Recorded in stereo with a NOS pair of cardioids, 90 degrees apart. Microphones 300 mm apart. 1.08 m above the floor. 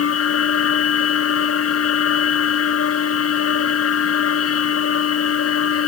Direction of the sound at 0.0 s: 50° left.